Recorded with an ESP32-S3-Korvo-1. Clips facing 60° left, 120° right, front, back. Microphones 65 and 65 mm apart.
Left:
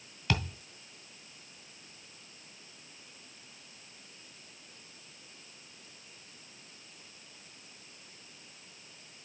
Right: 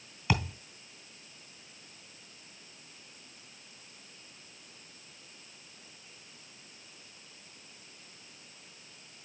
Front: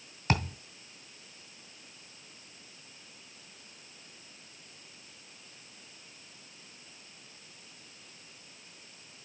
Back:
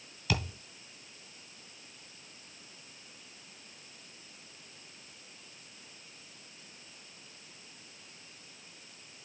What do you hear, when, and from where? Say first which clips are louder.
0.3 s a thud: right 2 dB, front 4 dB; 40° right, 2.0 m